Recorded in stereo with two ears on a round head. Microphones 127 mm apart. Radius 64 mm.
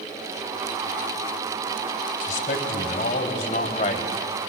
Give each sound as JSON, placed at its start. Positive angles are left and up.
{"t": 2.2, "sound": "a man speaking", "side_deg": 60, "distance_m": 3.0}